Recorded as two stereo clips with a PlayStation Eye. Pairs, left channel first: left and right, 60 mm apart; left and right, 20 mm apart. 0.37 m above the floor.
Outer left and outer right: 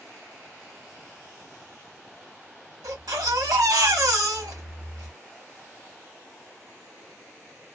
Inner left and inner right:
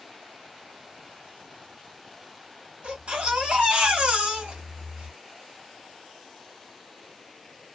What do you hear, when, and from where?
2.8 s a baby crying: 70° right (ahead or behind), 2 m